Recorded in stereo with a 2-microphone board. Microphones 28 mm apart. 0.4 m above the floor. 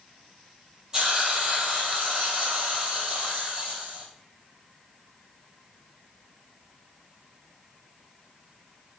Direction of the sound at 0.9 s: 25° right (ahead or behind).